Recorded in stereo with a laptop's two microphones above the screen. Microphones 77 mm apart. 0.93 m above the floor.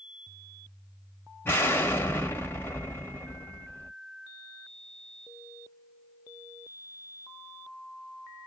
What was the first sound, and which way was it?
An explosion, 30° left (ahead or behind).